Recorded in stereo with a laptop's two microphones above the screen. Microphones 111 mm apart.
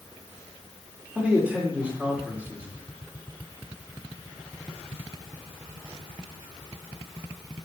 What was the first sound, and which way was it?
A man speaking, 10° right (ahead or behind).